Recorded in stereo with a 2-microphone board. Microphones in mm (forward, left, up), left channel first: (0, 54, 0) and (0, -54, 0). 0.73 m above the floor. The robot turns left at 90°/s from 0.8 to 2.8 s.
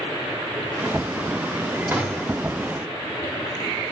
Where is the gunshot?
160° right, 1.9 m; by 2.4 s 150° left, 1.9 m.